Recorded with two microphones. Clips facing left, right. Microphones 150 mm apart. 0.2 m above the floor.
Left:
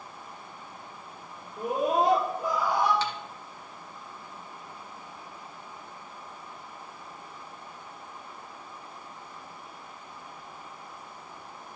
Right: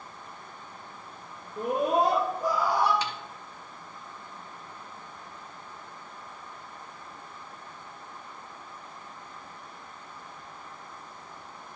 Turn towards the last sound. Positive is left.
turn(degrees=-15)  # may be behind; listen again after turning